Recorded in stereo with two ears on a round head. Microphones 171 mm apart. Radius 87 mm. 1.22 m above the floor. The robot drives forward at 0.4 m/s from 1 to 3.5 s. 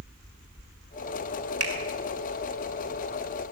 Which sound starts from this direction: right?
A finger snap, at 1.6 s.